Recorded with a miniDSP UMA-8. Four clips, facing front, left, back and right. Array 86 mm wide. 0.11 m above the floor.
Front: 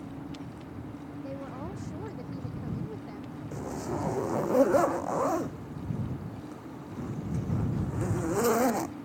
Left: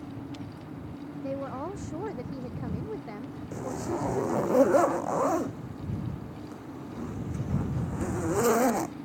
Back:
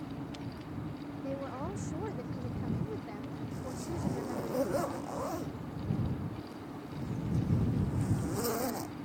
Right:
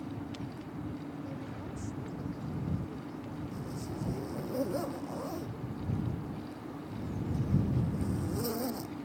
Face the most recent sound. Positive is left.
turn(degrees=60)